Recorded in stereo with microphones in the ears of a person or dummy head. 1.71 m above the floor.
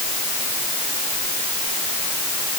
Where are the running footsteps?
I don't hear running footsteps.